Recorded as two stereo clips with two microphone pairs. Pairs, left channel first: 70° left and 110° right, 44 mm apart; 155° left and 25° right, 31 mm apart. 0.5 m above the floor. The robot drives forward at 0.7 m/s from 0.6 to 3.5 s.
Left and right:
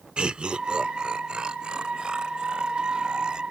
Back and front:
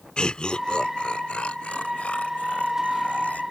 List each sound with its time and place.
0.2 s laughter: 165° right; by 3.4 s 175° right